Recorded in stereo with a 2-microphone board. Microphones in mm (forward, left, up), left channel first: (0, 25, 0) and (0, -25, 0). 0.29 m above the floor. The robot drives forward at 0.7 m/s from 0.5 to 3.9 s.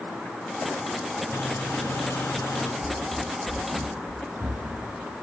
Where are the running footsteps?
30° left (ahead or behind), 0.5 m; by 5.1 s 50° right (ahead or behind), 2.5 m.